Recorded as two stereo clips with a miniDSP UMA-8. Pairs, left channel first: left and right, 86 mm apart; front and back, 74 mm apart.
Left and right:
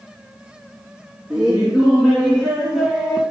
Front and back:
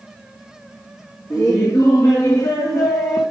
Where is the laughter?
10° right, 3 m; by 3.2 s 5° left, 2 m.